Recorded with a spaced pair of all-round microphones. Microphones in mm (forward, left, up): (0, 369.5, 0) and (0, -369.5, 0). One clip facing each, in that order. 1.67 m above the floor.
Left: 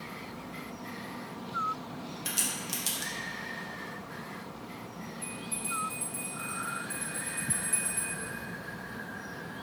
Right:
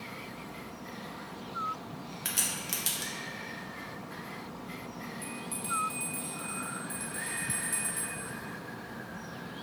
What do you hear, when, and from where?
2.2 s a crack: 75° right (ahead or behind), 1.3 m
5.2 s a bell: 65° right (ahead or behind), 1.6 m